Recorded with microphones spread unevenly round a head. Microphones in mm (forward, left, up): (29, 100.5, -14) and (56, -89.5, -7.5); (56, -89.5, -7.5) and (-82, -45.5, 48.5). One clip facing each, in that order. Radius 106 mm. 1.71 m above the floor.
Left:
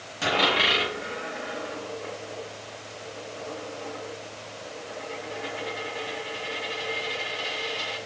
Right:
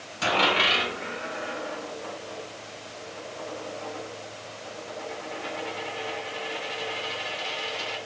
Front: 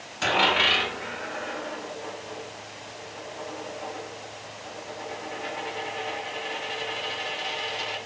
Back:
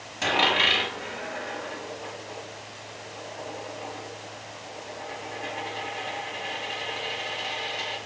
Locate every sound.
0.2 s a dropped coin: 170° left, 1.2 m